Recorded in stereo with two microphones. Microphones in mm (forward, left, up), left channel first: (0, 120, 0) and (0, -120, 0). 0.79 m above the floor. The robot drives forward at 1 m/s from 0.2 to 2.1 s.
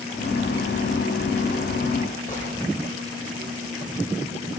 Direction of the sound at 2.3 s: 30° left (ahead or behind).